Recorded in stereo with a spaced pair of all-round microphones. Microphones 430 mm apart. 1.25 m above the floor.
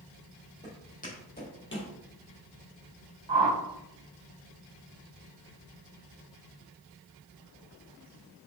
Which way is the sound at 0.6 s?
15° left (ahead or behind).